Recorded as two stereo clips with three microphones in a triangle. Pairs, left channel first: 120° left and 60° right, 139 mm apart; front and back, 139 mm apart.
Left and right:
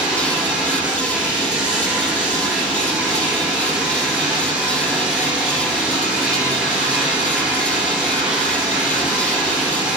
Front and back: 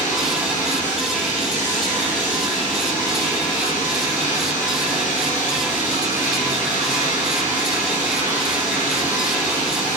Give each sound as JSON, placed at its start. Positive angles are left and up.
{"t": 0.0, "sound": "running water", "azimuth_deg": 20, "distance_m": 3.5}